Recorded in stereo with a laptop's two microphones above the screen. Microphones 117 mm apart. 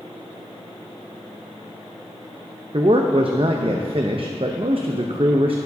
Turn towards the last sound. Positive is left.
turn(degrees=-55)  # may be behind; listen again after turning